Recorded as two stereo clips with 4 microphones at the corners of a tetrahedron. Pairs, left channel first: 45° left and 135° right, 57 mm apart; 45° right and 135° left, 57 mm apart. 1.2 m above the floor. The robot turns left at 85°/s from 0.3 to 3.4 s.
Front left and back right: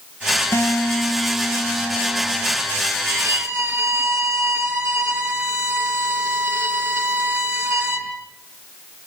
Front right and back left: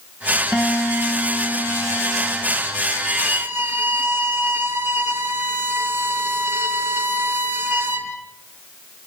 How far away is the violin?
About 4.5 m.